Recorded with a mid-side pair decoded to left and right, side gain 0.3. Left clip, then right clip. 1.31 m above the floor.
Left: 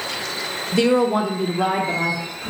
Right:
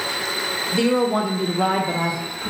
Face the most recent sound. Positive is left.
turn(degrees=-35)